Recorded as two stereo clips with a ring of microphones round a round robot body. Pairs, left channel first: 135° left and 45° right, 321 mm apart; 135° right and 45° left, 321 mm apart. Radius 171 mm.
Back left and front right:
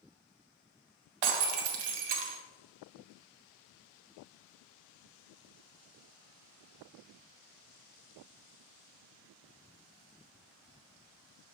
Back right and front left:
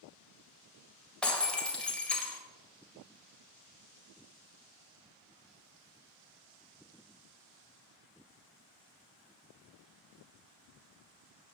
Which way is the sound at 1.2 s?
50° right.